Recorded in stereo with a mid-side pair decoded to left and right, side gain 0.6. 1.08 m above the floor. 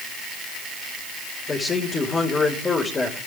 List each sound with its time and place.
1.5 s a man speaking: 25° left, 4.5 m